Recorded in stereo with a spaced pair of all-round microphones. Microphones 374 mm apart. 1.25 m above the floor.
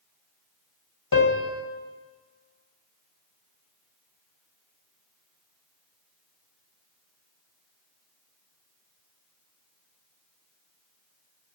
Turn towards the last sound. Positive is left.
turn(degrees=60)  # may be behind; listen again after turning